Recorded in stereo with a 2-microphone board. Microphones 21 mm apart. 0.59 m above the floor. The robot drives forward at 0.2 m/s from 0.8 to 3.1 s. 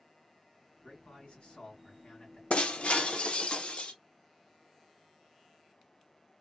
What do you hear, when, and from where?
0.8 s a man speaking: 60° left (ahead or behind), 2.5 m
2.5 s breaking glass: 75° left (ahead or behind), 0.6 m; by 3.9 s 65° left (ahead or behind), 0.6 m